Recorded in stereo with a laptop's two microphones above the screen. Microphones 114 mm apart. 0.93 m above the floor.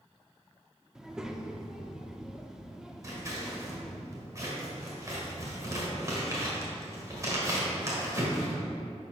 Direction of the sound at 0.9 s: 5° right (ahead or behind).